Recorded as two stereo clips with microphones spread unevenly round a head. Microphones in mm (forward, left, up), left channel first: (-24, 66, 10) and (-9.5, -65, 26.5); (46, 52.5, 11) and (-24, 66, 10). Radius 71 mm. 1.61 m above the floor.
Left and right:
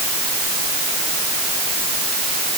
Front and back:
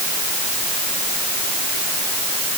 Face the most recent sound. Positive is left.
No sound to turn to.